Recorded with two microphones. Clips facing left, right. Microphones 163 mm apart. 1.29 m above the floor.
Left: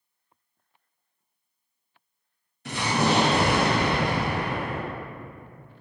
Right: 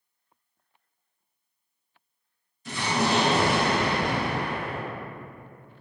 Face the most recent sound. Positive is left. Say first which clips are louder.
# left 2 dB
turn(degrees=65)  # may be behind; listen again after turning